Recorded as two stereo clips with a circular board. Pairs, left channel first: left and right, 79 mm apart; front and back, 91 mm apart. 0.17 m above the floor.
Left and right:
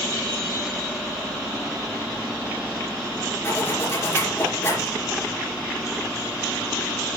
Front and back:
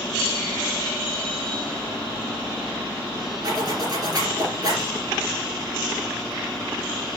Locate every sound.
3.4 s a zipper: 145° left, 4 m